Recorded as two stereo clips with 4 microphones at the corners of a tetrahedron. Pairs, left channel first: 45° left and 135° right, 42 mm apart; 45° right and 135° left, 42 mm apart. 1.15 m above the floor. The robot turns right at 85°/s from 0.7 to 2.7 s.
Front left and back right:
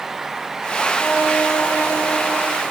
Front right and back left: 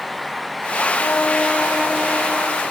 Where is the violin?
15° right, 7.5 m; by 2.5 s 110° left, 7.5 m.